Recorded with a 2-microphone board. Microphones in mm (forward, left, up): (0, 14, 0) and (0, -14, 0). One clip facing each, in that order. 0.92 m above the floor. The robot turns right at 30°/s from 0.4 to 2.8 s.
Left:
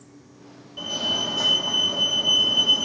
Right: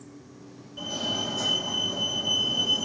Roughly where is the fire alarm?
Ahead left.